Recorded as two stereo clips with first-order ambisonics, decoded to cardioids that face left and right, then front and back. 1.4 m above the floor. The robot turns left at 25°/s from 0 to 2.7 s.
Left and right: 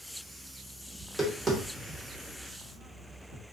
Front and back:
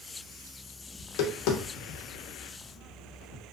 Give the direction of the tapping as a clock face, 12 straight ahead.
12 o'clock.